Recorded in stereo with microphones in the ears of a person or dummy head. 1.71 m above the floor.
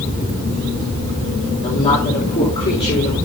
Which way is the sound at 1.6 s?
30° left (ahead or behind).